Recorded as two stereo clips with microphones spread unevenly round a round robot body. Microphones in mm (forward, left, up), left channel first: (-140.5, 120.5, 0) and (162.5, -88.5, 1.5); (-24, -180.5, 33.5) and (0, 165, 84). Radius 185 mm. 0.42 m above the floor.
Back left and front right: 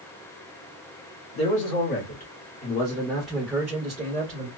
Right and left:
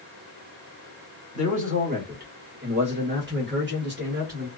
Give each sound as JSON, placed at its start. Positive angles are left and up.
{"t": 1.4, "sound": "a man speaking", "azimuth_deg": 155, "distance_m": 1.5}